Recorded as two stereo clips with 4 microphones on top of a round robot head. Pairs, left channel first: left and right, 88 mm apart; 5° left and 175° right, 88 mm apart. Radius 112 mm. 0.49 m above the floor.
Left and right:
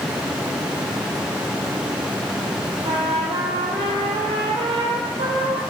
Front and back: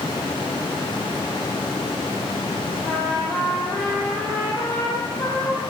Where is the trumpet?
70° right, 2.5 m.